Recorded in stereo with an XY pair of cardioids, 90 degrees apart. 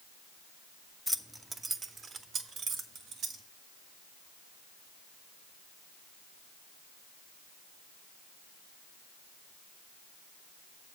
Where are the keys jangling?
5° left, 0.5 m; by 3.4 s 75° right, 1.4 m.